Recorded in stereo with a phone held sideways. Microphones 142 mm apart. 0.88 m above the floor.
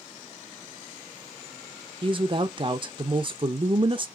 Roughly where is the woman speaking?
Right.